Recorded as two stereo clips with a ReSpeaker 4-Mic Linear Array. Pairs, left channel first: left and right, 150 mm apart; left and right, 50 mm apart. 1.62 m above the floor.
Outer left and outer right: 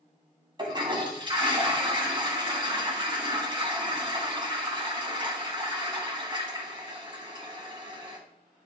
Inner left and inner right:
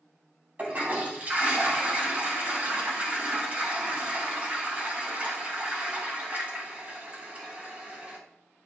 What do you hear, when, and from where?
0.6 s a toilet flushing: 30° right (ahead or behind), 2.5 m